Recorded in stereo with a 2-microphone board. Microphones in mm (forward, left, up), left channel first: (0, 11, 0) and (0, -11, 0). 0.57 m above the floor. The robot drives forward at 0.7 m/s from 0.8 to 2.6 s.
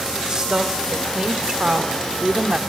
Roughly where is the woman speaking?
Right.